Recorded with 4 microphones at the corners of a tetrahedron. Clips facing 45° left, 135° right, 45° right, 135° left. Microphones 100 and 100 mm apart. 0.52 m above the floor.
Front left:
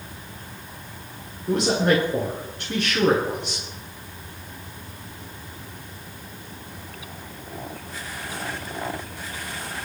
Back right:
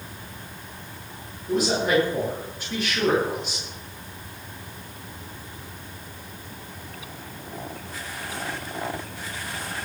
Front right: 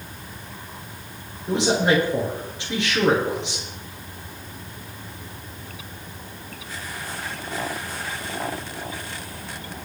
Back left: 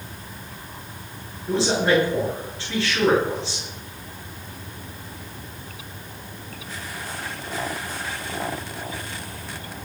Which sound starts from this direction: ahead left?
A man speaking, at 1.5 s.